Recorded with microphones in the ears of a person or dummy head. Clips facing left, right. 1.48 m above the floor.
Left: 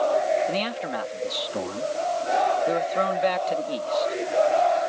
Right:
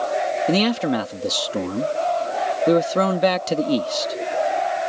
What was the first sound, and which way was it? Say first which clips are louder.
A man speaking: right 8 dB; 65° right (ahead or behind).